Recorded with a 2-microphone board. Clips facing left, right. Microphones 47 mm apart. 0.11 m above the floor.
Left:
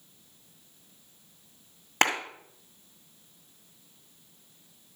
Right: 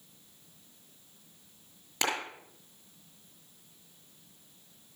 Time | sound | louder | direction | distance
2.0 | a clap | left 7 dB | 50° left (ahead or behind) | 2 m